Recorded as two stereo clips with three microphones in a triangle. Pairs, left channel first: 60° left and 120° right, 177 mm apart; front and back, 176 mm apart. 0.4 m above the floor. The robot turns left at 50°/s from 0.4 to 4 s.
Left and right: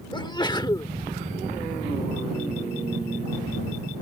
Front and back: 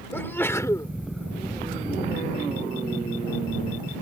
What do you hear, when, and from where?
0.1 s a sneeze: 60° left; by 0.9 s 35° left